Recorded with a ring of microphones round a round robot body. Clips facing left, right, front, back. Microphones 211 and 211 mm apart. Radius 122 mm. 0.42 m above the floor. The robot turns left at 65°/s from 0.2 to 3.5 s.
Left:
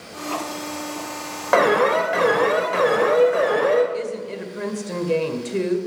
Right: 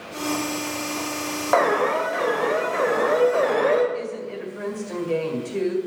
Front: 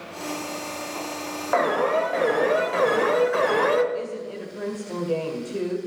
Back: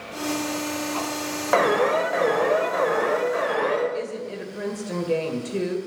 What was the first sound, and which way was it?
An alarm, 135° left.